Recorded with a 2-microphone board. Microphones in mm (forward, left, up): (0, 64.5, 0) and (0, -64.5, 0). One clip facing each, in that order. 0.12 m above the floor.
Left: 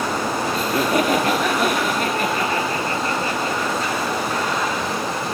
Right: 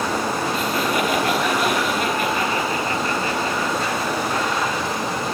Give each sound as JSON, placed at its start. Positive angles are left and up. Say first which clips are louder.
{"t": 0.5, "sound": "laughter", "louder": "left 2 dB", "side_deg": 40, "distance_m": 1.7}